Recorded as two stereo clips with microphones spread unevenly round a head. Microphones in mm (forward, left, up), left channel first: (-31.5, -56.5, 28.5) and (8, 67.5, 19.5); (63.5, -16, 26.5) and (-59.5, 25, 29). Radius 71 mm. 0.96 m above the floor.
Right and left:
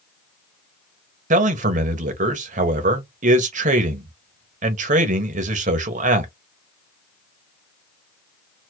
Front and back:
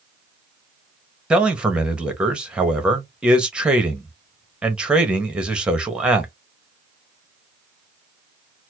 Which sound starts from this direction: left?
A man speaking, at 1.3 s.